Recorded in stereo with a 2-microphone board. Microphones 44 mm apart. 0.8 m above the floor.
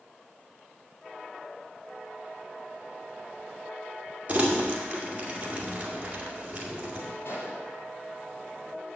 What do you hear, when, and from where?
4.3 s crumpling: 25° right (ahead or behind), 2 m
7.2 s a gunshot: 65° left (ahead or behind), 4 m